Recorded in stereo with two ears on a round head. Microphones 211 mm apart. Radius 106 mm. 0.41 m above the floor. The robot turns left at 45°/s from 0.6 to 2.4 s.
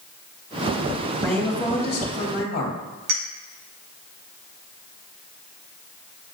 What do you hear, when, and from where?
1.2 s a woman speaking: straight behind, 2.5 m; by 2.8 s 125° left, 2.5 m
3.1 s a clink: 45° right (ahead or behind), 2.5 m